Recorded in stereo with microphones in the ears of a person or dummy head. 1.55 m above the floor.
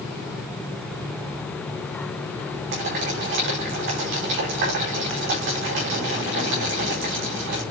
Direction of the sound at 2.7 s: 55° right (ahead or behind).